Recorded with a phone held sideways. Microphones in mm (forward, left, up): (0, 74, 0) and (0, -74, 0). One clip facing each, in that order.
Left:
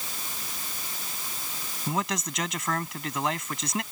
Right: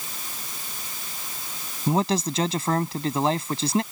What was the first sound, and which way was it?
A man speaking, 30° right (ahead or behind).